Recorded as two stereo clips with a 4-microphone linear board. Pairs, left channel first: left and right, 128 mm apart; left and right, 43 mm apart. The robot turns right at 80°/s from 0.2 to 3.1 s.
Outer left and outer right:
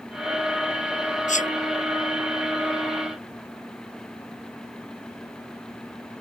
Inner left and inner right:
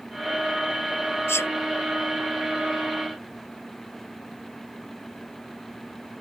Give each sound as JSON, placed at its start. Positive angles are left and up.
{"t": 1.3, "sound": "a sneeze", "side_deg": 75}